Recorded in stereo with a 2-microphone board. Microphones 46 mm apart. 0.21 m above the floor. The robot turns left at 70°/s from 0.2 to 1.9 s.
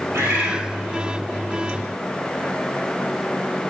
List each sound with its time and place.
0.1 s a bird: 100° right, 2.5 m; by 0.6 s 130° right, 2.5 m